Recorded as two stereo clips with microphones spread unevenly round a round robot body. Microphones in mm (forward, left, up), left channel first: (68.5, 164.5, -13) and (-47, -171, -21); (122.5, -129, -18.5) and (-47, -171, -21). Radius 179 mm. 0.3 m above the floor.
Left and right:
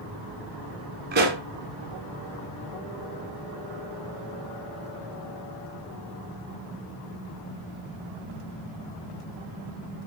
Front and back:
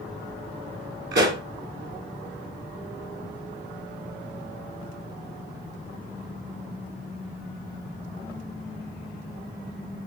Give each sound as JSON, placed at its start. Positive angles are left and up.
{"t": 1.1, "sound": "a pop", "azimuth_deg": -170, "distance_m": 2.0}